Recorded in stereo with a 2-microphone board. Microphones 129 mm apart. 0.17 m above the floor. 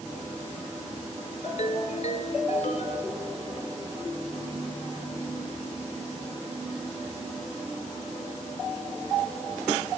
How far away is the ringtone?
About 1.3 m.